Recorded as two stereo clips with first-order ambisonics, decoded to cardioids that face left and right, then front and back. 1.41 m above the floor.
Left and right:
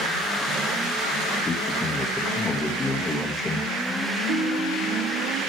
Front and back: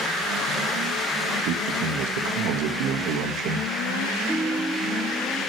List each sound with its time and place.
1.4 s a man speaking: 165° left, 1.9 m
4.3 s a ringtone: 95° right, 7 m